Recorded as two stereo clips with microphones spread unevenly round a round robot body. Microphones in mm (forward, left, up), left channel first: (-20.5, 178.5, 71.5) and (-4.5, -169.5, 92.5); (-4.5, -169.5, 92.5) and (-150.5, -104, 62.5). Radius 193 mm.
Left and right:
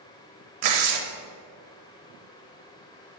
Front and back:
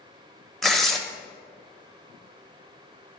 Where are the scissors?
No scissors in this recording.